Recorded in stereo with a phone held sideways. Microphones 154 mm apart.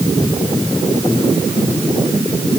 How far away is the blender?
I don't hear a blender.